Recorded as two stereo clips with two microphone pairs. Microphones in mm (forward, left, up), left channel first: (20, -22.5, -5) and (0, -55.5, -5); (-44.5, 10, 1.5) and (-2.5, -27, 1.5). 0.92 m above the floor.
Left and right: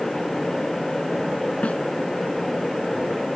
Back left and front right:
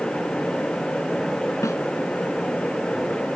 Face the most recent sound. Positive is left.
turn(degrees=115)